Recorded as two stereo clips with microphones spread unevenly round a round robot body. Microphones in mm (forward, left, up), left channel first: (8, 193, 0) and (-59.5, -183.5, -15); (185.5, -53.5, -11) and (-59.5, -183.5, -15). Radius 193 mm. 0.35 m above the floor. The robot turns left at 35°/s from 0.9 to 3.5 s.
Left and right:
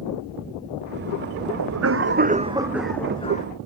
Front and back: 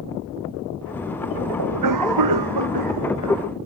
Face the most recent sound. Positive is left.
turn(degrees=145)